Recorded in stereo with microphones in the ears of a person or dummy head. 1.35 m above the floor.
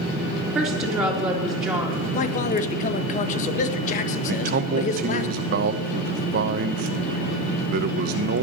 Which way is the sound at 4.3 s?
45° right (ahead or behind).